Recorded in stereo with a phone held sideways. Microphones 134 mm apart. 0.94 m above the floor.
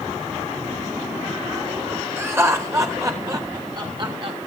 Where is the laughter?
20° right (ahead or behind), 4 m; by 4.4 s 45° right (ahead or behind), 2.5 m.